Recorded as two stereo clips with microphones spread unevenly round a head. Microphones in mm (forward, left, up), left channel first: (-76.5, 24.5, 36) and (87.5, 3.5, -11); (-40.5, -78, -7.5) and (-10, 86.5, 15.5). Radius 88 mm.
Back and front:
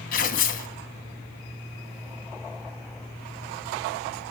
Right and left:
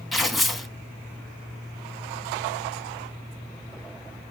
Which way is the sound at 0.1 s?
165° left.